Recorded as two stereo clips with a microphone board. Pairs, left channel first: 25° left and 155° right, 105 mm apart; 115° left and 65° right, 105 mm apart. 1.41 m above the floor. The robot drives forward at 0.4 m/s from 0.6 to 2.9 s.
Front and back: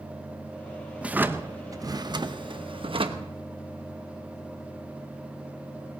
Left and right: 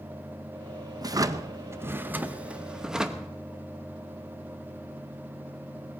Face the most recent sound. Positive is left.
turn(degrees=-150)